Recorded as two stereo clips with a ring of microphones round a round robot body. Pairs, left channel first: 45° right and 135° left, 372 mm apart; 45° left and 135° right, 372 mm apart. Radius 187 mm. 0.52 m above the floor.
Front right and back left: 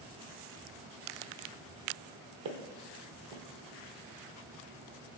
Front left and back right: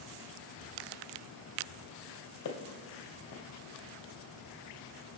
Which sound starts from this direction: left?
Footsteps, at 2.5 s.